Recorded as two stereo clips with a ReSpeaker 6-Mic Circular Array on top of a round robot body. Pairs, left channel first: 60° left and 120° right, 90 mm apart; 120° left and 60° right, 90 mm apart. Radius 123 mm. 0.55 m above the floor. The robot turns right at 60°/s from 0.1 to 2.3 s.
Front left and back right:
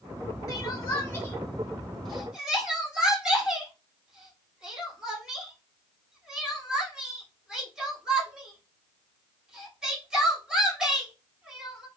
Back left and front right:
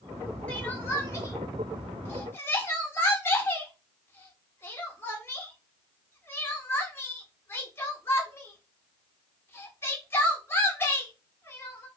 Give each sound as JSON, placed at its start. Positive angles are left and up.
{"t": 0.5, "sound": "crying", "azimuth_deg": 55, "distance_m": 1.5}